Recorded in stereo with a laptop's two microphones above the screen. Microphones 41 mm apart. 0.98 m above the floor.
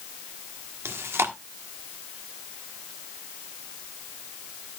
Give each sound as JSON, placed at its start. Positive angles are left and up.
{"t": 0.8, "sound": "chewing", "side_deg": -85, "distance_m": 1.4}